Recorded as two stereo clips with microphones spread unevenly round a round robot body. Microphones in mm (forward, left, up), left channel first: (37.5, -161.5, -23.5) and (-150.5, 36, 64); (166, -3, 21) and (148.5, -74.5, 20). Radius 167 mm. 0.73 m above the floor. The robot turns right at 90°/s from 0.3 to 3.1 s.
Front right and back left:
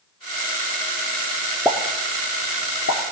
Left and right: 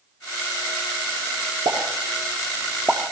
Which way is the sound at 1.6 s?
135° right.